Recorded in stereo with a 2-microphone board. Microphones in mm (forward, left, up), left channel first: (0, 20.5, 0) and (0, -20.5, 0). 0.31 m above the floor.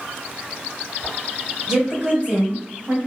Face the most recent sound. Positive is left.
turn(degrees=-40)  # may be behind; listen again after turning